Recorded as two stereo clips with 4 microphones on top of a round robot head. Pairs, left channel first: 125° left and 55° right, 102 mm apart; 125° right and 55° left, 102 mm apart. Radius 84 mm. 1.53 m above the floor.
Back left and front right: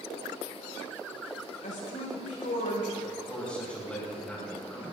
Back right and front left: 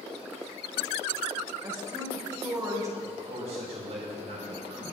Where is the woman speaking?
115° left, 5 m.